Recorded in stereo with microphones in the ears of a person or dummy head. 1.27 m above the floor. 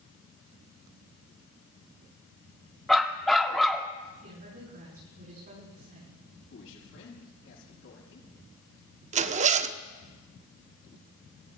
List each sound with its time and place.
2.9 s a dog barking: centre (ahead or behind), 1.2 m
4.2 s a woman speaking: 40° right (ahead or behind), 8 m
6.5 s a man speaking: 70° left (ahead or behind), 7.5 m
9.1 s a zipper: 35° right (ahead or behind), 0.7 m